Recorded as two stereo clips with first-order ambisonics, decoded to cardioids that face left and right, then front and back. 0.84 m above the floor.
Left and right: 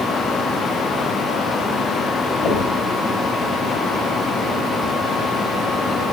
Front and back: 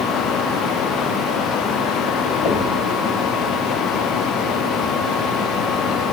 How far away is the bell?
I don't hear a bell.